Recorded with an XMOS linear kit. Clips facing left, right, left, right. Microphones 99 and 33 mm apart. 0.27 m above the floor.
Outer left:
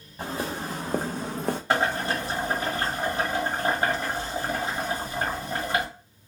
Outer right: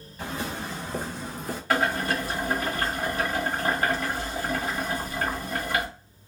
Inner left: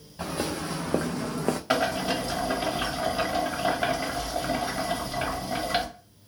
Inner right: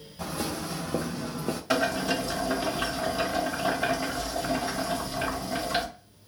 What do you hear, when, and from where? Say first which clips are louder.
0.2 s footsteps: outer left 2 dB, inner left 2 dB; 30° left (ahead or behind), 1.3 m; by 1.6 s 75° left (ahead or behind), 0.8 m
1.7 s boiling: outer right 1 dB, inner right 1 dB; 25° left (ahead or behind), 1.3 m